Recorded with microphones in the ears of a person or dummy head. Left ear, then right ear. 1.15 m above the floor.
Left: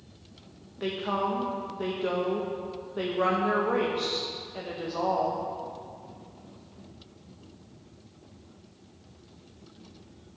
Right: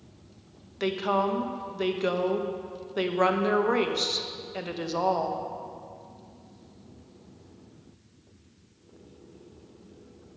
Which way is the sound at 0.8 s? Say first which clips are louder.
Right 3 dB; 75° right (ahead or behind).